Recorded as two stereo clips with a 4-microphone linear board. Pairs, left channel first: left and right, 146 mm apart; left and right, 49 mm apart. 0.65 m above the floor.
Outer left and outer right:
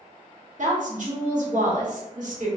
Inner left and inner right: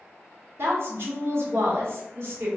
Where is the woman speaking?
60° right (ahead or behind), 1.3 m.